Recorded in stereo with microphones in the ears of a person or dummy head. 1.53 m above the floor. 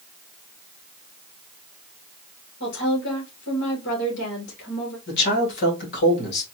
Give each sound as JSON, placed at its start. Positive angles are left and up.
{"t": 2.6, "sound": "a woman speaking", "side_deg": 65, "distance_m": 2.5}
{"t": 5.1, "sound": "a man speaking", "side_deg": 65, "distance_m": 2.5}